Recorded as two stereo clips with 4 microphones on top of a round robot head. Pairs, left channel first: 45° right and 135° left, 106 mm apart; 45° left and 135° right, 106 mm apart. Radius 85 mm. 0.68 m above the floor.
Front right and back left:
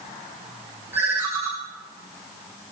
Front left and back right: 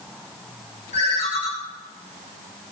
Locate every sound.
0.9 s a ringtone: 65° left, 2.5 m